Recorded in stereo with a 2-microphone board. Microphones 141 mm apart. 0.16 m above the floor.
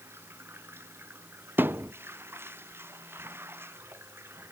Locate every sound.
0.0 s running water: 15° right (ahead or behind)
1.6 s a thud: 15° right (ahead or behind)